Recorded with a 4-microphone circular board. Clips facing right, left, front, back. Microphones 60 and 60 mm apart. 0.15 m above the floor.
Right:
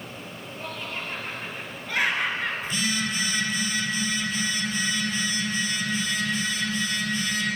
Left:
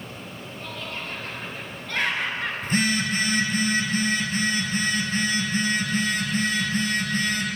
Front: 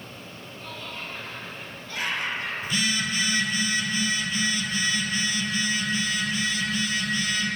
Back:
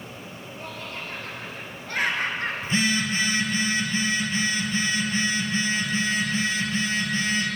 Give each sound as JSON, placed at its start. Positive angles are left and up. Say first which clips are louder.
{"t": 0.6, "sound": "laughter", "louder": "right 1 dB, back 1 dB", "azimuth_deg": -160, "distance_m": 4.0}
{"t": 2.6, "sound": "a phone buzzing", "louder": "left 4 dB, back 3 dB", "azimuth_deg": 125, "distance_m": 2.0}